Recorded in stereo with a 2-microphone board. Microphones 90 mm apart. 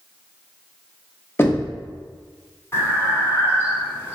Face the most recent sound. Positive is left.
turn(degrees=35)  # may be behind; listen again after turning